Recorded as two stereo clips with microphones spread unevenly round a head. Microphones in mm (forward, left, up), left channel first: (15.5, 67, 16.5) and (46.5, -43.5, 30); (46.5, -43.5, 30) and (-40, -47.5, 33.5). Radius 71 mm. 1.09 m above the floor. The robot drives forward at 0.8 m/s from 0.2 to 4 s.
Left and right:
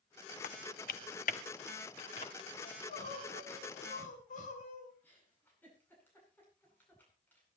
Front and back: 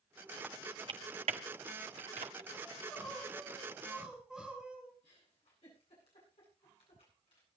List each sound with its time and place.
0.4 s typing on a keyboard: 95° left, 0.6 m; by 2.5 s 160° left, 1.8 m
2.6 s crying: 80° left, 4 m; by 4.9 s 95° left, 4 m
5.0 s a giggle: 30° left, 10 m